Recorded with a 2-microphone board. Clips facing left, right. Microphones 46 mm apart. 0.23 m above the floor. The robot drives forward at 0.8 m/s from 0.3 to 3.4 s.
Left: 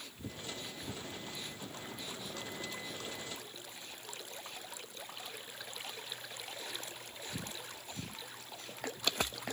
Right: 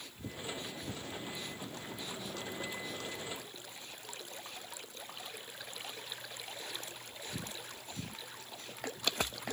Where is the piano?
I don't hear a piano.